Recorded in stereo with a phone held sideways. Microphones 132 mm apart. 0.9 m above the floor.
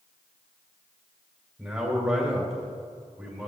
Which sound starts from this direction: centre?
A man speaking, at 1.6 s.